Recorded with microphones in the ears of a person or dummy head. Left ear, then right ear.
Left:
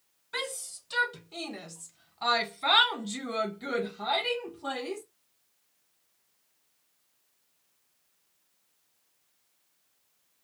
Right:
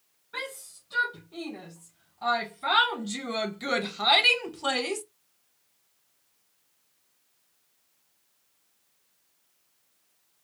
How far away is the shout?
About 1.7 m.